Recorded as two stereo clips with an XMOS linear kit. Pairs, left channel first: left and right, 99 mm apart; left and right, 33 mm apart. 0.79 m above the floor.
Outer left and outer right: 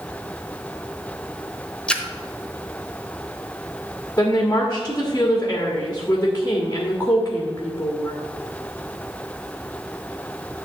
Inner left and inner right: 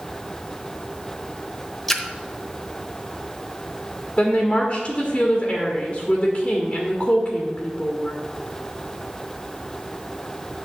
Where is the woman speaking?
20° left (ahead or behind), 1.4 m.